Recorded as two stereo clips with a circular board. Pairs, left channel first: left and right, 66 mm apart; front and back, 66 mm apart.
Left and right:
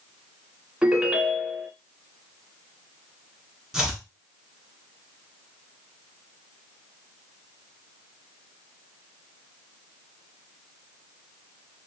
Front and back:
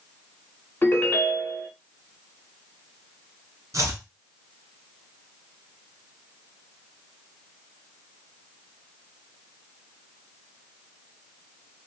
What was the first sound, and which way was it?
A ringtone, 25° right.